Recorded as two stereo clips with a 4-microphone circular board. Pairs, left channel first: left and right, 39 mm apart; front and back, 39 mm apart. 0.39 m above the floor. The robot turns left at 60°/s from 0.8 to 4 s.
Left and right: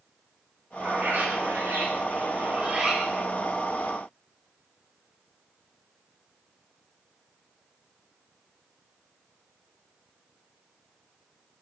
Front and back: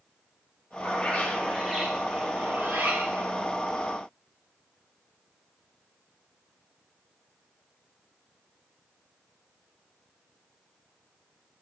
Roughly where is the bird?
Ahead right.